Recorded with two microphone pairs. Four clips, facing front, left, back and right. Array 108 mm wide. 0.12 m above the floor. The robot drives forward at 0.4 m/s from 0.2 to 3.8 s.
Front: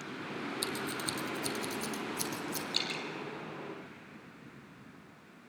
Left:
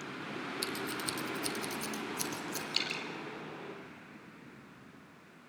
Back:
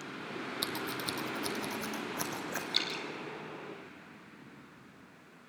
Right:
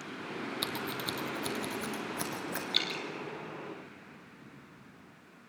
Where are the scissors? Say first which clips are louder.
Right 1 dB, even; 125° right, 1.3 m; by 2.6 s 145° right, 1.9 m.